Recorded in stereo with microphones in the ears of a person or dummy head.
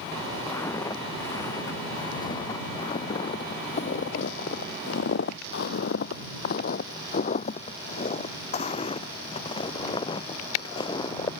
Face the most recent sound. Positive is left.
turn(degrees=25)  # may be behind; listen again after turning